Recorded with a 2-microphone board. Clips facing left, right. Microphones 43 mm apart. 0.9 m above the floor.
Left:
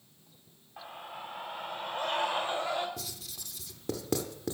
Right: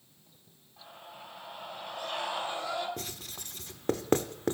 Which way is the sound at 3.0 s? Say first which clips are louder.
Right 2 dB; 40° right (ahead or behind).